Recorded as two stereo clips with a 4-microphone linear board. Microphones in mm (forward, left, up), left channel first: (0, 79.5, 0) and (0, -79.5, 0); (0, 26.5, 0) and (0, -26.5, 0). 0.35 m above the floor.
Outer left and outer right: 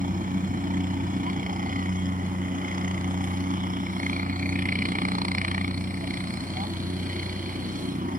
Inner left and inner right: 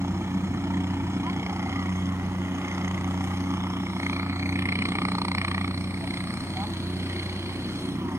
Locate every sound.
0.0 s a helicopter: 60° right (ahead or behind)